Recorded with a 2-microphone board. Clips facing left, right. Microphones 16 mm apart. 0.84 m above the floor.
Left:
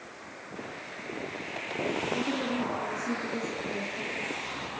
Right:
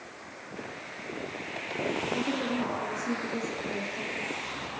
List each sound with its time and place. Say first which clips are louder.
2.1 s a woman speaking: even; 20° right (ahead or behind), 1.6 m